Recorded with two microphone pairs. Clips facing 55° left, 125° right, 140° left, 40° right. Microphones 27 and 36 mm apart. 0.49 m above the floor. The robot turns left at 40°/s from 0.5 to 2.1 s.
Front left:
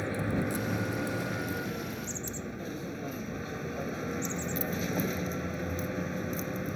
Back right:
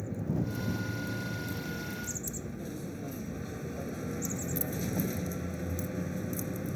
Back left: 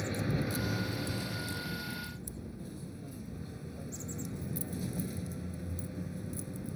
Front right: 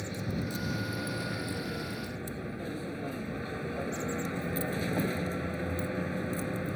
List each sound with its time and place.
0.0 s a vehicle: 60° left; by 6.8 s 5° right